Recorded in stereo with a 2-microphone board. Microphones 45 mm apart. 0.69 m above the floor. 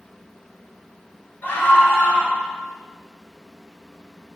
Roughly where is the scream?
Left.